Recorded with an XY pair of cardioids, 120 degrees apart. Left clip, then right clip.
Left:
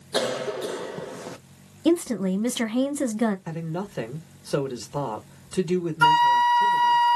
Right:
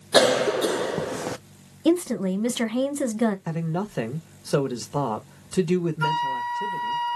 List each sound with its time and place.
0.1 s a cough: 45° right, 0.5 m
1.9 s a woman speaking: straight ahead, 1.1 m
3.5 s a man speaking: 25° right, 1.2 m
6.0 s a flute: 50° left, 0.6 m